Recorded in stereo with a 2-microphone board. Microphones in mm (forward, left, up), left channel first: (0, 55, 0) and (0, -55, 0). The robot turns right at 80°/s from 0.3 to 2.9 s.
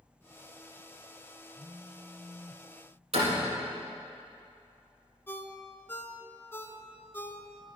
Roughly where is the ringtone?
Left.